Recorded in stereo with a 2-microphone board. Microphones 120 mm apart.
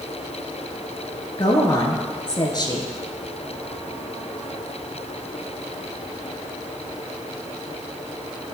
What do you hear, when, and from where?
1.4 s a woman speaking: 35° left (ahead or behind), 1.3 m